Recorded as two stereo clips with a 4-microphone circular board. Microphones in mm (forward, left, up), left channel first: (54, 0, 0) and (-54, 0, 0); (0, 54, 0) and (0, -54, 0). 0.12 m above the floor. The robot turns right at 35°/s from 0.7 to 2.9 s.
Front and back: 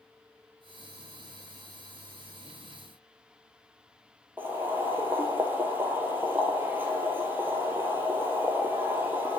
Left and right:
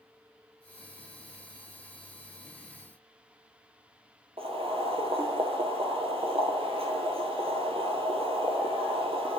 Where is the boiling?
110° right, 1.3 m.